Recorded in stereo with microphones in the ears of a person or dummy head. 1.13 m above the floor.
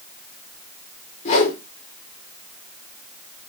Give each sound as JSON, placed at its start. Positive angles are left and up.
{"t": 1.2, "sound": "a whoosh", "side_deg": 40, "distance_m": 2.5}